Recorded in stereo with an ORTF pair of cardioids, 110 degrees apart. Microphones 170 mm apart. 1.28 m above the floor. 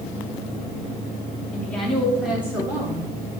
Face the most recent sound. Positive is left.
turn(degrees=-15)